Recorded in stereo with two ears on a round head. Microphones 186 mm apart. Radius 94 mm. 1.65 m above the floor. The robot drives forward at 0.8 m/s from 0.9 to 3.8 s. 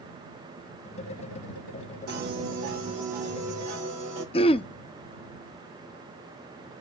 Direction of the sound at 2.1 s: 50° right (ahead or behind).